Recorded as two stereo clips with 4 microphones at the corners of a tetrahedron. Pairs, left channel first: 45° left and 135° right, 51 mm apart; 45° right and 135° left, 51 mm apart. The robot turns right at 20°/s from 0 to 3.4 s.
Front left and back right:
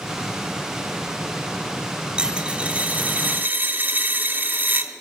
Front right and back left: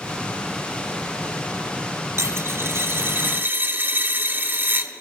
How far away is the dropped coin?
About 1.1 m.